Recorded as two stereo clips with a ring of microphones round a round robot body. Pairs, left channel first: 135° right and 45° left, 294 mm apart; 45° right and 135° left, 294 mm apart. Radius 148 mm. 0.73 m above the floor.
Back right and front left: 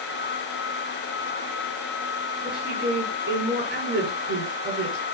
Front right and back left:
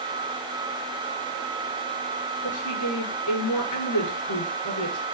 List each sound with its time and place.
2.4 s a woman speaking: 10° right, 6.5 m